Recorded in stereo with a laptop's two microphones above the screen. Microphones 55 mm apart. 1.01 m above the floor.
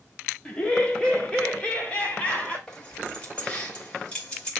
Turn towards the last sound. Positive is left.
turn(degrees=20)  # may be behind; listen again after turning